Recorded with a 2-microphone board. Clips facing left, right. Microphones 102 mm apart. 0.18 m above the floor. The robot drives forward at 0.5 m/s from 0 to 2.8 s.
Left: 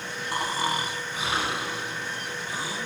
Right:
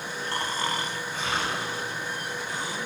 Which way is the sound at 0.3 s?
15° left (ahead or behind).